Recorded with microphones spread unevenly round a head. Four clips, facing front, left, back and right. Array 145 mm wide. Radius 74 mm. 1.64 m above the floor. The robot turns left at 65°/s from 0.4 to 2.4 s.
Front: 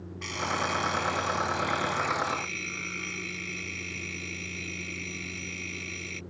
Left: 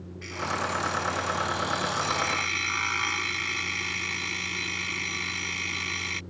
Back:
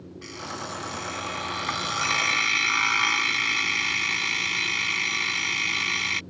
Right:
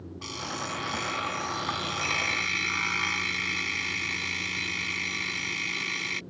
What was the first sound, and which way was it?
An alarm clock, 60° right.